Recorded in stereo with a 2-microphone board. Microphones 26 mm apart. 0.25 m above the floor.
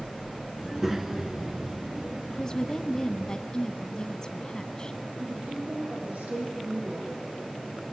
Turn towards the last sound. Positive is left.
turn(degrees=-80)